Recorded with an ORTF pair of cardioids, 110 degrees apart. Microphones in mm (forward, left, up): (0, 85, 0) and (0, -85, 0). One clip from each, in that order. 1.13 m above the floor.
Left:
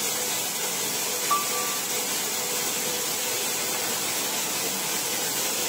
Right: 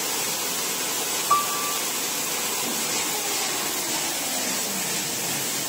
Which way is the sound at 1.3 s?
20° right.